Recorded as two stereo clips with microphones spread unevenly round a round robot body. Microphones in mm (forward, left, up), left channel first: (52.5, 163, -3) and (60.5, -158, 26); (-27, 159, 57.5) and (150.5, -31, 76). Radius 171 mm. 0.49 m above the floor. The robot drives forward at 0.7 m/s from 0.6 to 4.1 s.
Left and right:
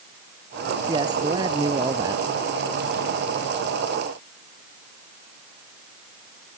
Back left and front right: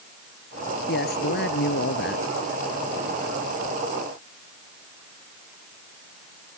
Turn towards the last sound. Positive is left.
turn(degrees=-170)